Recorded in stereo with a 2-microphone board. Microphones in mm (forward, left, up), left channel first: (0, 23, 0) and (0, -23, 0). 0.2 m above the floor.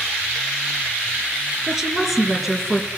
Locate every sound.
1.7 s a woman speaking: centre (ahead or behind), 4 m